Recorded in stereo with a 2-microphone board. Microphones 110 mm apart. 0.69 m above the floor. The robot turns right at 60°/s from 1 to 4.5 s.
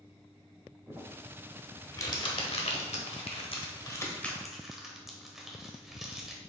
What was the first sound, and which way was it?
Crumpling, 30° right (ahead or behind).